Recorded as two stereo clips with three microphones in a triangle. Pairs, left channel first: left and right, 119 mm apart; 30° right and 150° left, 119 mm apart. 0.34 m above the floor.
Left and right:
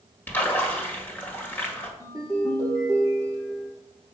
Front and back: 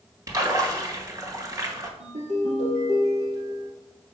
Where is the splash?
145° left, 1.7 m.